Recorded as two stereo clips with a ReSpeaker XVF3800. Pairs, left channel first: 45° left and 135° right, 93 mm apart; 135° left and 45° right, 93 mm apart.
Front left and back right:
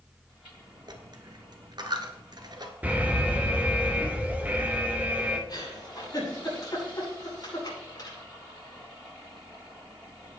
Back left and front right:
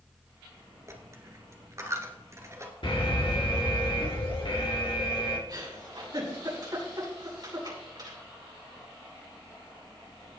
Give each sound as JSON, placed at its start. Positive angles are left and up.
{"t": 0.9, "sound": "a dropped coin", "azimuth_deg": -100, "distance_m": 1.7}
{"t": 2.8, "sound": "an alarm", "azimuth_deg": 155, "distance_m": 2.0}
{"t": 5.5, "sound": "a giggle", "azimuth_deg": 0, "distance_m": 7.5}